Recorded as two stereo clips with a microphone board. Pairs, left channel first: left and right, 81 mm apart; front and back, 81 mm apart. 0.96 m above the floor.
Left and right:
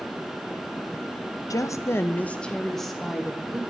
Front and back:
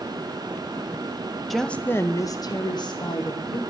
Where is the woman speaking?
90° left, 0.5 m; by 3.6 s 5° right, 1.2 m.